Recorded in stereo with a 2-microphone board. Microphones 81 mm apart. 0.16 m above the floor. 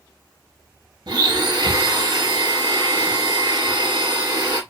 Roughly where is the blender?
Right.